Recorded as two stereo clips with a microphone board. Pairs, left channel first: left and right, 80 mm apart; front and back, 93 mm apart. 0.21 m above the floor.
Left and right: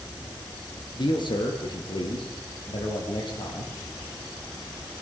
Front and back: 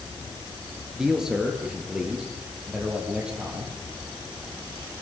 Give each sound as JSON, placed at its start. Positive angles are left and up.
{"t": 1.0, "sound": "a man speaking", "azimuth_deg": 95, "distance_m": 3.5}